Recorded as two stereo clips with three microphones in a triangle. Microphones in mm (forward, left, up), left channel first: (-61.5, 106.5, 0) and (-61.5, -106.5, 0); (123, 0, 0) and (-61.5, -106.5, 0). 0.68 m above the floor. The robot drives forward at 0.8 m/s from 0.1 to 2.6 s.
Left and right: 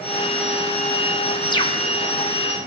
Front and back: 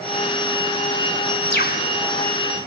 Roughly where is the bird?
Ahead left.